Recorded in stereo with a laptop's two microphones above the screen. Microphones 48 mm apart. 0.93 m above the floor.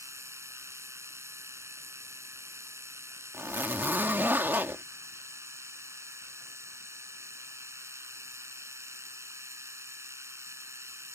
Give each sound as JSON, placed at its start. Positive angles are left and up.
{"t": 0.0, "sound": "a machine running", "side_deg": -75}
{"t": 3.3, "sound": "a zipper", "side_deg": -45}